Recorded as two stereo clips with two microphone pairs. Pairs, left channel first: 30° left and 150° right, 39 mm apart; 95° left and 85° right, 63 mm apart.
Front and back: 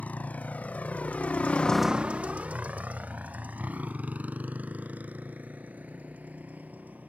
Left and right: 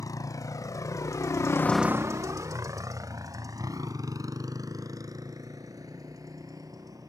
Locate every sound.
0.0 s a motorcycle: 80° left; by 7.1 s 100° right